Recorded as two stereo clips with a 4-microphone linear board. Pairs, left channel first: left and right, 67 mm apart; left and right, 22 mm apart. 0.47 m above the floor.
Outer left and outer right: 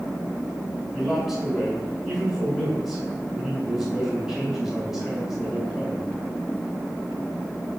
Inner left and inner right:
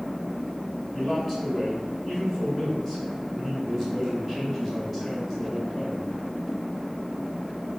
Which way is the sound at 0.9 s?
5° right (ahead or behind).